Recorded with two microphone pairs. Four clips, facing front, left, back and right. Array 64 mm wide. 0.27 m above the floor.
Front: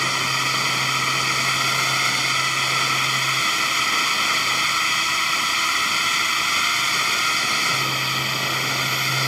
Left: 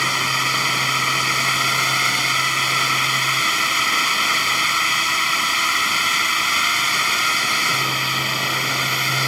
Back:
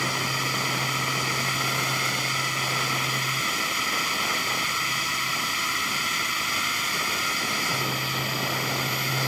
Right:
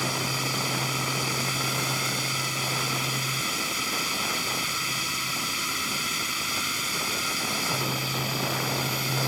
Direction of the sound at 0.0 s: 65° left.